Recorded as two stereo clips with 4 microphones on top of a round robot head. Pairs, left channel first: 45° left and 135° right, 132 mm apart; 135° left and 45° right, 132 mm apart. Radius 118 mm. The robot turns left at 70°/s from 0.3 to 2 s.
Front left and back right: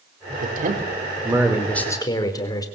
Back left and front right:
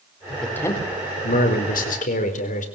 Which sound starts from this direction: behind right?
A man speaking, at 0.4 s.